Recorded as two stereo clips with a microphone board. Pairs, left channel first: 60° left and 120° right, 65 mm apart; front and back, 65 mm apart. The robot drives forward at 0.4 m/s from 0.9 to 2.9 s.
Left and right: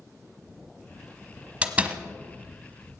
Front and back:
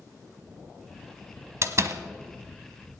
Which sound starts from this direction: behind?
A door slam, at 1.6 s.